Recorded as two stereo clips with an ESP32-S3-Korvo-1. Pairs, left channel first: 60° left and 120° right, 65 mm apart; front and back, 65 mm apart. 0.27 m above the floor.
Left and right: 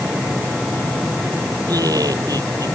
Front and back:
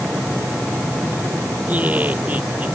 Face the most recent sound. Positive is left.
turn(degrees=-115)